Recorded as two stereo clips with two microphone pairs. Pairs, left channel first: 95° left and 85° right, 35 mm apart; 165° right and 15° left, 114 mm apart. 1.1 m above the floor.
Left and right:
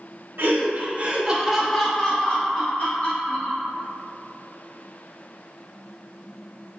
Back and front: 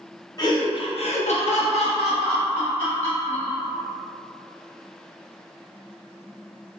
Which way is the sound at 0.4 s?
110° right.